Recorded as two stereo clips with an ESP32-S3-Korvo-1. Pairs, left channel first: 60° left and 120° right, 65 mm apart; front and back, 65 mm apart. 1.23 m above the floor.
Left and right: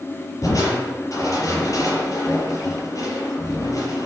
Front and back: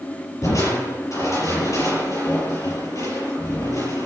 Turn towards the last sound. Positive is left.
turn(degrees=30)